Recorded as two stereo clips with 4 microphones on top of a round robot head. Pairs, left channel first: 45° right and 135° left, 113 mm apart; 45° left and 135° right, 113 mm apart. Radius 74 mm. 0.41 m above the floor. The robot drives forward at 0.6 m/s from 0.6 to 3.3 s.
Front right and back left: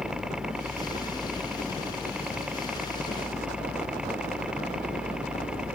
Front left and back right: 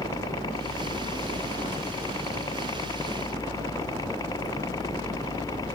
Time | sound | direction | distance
0.0 | a helicopter | 55° left | ?